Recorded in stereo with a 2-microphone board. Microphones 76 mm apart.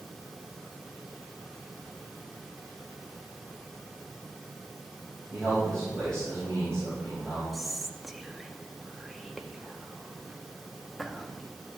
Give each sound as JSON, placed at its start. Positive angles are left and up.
{"t": 5.3, "sound": "a man speaking", "side_deg": 10, "distance_m": 4.0}
{"t": 7.5, "sound": "whispering", "side_deg": 0, "distance_m": 0.7}